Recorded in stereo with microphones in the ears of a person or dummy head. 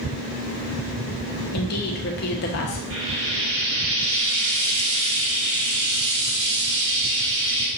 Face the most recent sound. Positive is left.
turn(degrees=-65)  # may be behind; listen again after turning